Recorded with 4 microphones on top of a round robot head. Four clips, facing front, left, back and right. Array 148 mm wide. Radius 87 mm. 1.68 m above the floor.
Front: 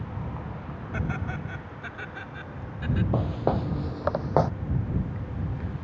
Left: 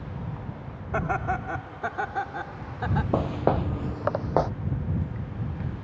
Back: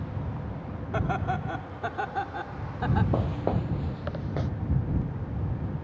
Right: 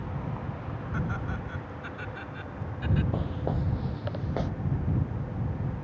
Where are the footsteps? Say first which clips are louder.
Left 8 dB, front 2 dB; 95° left; by 4.5 s 40° left.